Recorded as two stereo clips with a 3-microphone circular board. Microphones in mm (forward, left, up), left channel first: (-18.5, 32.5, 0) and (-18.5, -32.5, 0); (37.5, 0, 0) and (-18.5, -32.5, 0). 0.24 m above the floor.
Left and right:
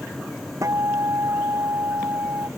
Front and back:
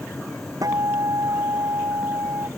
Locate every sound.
0.6 s a guitar: 125° right